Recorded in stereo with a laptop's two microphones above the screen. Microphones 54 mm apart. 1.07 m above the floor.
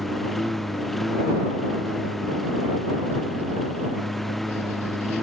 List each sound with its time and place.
0.0 s a lawn mower: 5° left (ahead or behind)